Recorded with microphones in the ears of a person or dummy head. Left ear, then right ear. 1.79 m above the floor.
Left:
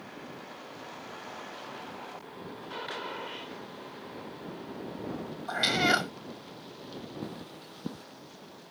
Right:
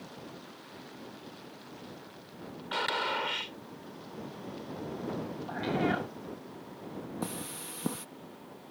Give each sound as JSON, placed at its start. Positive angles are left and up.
{"t": 2.7, "sound": "a gunshot", "side_deg": -40}
{"t": 5.5, "sound": "a cat meowing", "side_deg": 65}
{"t": 7.2, "sound": "cutlery clinking", "side_deg": -30}